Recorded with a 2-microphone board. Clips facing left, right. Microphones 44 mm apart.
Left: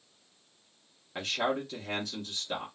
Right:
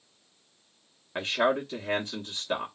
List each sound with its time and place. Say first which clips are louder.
1.1 s a man speaking: right 5 dB; 25° right (ahead or behind), 0.7 m